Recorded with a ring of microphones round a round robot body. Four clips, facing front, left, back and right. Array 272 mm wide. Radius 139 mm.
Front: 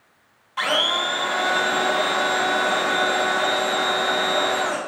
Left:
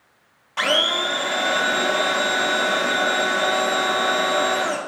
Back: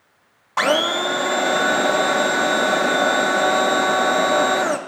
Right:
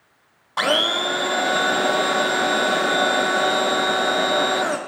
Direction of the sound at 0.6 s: 155° right.